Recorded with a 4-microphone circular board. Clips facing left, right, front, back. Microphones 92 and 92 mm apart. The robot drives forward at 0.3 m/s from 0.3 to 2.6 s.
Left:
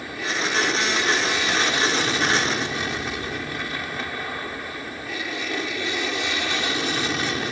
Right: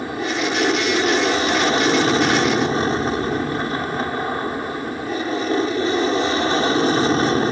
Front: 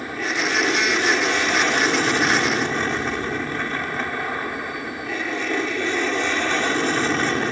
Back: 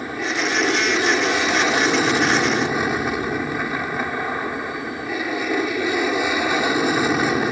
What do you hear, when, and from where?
0.0 s an aircraft: 105° right